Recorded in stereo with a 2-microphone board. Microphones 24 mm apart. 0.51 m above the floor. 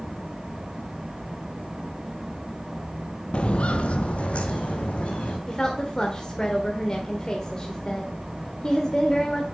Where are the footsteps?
50° left (ahead or behind), 0.7 m; by 5.4 s 65° left (ahead or behind), 2.5 m.